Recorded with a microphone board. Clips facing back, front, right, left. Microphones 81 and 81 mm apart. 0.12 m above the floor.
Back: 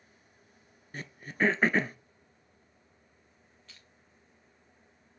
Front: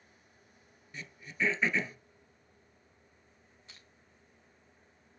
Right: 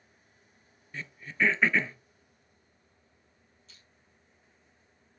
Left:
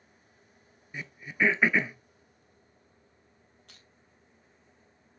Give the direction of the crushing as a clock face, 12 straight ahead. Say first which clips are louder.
Front 1 dB, left 3 dB; 10 o'clock.